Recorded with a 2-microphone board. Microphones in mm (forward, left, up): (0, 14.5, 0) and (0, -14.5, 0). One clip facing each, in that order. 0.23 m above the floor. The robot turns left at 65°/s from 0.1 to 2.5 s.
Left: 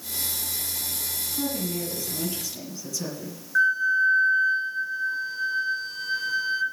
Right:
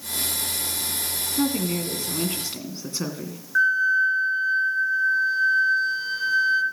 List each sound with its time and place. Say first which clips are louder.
1.4 s a woman speaking: right 5 dB; 45° right, 2 m; by 3.4 s 115° right, 2 m
3.5 s a flute: right 2 dB; 5° right (ahead or behind), 2.5 m